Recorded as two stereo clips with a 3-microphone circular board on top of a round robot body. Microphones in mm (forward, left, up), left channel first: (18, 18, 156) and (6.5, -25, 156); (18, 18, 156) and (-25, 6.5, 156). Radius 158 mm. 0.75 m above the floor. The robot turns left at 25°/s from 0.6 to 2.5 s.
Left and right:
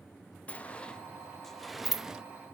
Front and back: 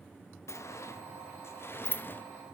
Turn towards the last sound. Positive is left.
turn(degrees=-35)